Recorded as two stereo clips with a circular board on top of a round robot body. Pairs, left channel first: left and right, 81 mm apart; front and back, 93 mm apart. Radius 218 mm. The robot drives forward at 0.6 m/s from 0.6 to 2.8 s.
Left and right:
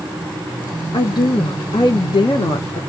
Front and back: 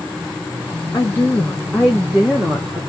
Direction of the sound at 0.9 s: 60° left.